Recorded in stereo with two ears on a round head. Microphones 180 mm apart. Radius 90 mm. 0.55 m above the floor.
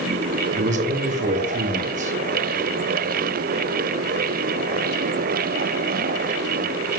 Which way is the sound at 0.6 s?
40° right (ahead or behind).